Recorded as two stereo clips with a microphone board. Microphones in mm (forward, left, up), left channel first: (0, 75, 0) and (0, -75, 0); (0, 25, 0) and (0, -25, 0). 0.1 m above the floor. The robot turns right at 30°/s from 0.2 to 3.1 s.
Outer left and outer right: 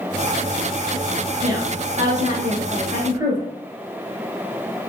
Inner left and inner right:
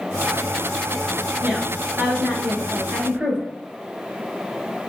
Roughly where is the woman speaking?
Right.